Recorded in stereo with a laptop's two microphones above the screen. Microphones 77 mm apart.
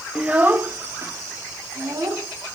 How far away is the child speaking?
About 1.0 m.